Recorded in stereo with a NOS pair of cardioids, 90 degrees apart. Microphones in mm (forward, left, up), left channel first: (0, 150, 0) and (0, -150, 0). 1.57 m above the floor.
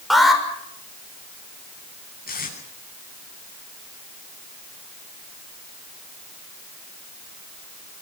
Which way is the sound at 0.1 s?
Straight ahead.